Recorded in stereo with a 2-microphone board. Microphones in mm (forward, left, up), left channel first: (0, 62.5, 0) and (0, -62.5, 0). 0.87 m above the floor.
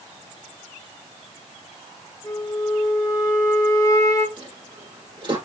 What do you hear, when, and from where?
2.2 s a flute: 30° left (ahead or behind), 2 m
4.4 s a dropped coin: 40° right (ahead or behind), 4.5 m